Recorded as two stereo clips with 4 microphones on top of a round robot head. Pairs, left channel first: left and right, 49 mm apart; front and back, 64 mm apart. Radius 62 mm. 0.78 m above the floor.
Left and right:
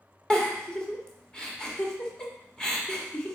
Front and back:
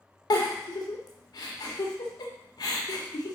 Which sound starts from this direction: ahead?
A giggle, at 0.3 s.